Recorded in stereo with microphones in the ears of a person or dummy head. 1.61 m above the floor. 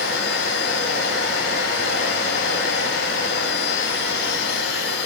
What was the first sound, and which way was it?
A machine running, 70° left (ahead or behind).